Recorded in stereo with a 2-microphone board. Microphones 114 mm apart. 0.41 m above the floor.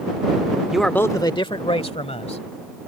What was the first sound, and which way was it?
A man speaking, 5° right (ahead or behind).